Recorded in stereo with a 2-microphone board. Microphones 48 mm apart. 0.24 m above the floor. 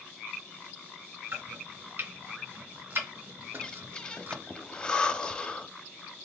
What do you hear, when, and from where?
1.3 s chopping: 50° right (ahead or behind), 2.0 m
3.5 s breathing: 20° left (ahead or behind), 0.5 m